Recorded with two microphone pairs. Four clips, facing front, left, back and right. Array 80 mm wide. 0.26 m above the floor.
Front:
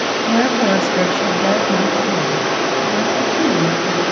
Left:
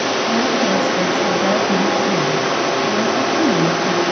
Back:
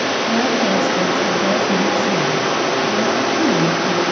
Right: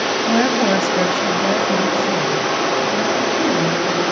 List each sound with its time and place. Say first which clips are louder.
0.2 s a woman speaking: right 3 dB, front 4 dB; 65° right, 1.7 m; by 4.0 s 70° left, 4.5 m